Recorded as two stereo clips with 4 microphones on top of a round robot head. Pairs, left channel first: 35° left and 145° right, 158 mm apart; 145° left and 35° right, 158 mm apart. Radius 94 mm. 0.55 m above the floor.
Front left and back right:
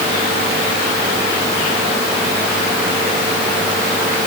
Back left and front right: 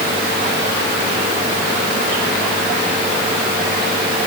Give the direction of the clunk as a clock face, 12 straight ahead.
I don't hear a clunk.